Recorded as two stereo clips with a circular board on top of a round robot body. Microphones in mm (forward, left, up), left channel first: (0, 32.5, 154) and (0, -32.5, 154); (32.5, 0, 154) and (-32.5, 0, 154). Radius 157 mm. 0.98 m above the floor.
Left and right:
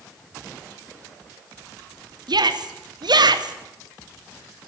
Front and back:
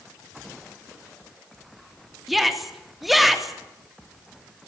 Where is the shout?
90° right, 3 m.